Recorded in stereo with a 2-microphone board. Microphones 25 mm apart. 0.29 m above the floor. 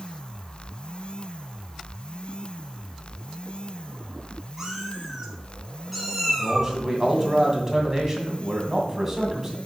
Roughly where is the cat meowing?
Centre.